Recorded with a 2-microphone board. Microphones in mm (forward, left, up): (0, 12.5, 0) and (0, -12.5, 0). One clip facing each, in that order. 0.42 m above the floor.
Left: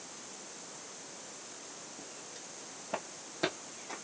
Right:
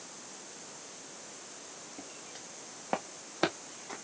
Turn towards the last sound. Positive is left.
turn(degrees=-5)  # may be behind; listen again after turning